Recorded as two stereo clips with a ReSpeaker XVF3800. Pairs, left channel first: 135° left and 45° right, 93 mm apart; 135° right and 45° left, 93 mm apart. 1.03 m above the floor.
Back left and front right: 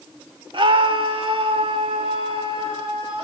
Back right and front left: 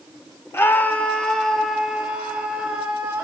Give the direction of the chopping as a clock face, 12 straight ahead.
No chopping in this recording.